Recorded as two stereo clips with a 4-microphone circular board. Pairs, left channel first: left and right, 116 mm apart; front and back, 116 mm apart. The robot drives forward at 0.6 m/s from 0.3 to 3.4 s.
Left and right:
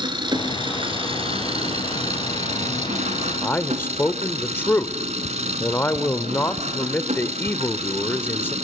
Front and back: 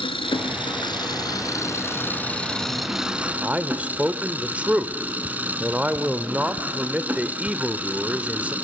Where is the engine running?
40° right, 2 m; by 8.7 s 105° right, 1.4 m.